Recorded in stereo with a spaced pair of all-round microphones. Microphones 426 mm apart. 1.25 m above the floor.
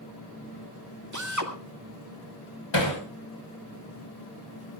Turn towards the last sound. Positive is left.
turn(degrees=85)